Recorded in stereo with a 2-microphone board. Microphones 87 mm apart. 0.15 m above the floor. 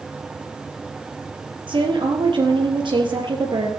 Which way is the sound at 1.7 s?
70° right (ahead or behind).